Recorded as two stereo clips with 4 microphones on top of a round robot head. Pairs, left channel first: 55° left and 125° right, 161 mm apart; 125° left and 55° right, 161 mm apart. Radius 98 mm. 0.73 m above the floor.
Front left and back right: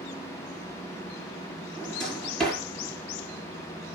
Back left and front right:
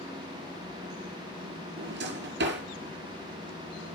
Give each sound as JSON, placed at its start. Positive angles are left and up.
{"t": 1.8, "sound": "a drawer", "azimuth_deg": -35, "distance_m": 5.0}